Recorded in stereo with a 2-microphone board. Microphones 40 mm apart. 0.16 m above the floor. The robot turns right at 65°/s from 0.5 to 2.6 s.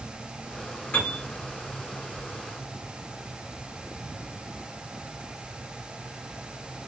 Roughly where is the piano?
Left.